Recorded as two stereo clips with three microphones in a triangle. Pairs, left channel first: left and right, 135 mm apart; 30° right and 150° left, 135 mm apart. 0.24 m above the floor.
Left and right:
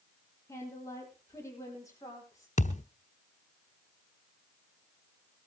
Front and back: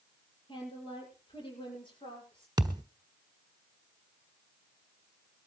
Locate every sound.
0.5 s a woman speaking: 20° left, 8 m
2.6 s a thud: 95° left, 1.2 m